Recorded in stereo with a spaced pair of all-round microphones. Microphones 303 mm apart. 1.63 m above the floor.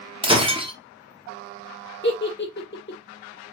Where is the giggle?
35° left (ahead or behind), 1.5 m.